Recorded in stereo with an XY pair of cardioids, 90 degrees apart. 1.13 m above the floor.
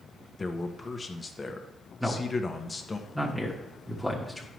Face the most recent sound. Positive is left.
turn(degrees=-5)